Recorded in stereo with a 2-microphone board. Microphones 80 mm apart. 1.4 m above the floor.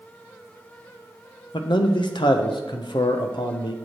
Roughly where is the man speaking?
Left.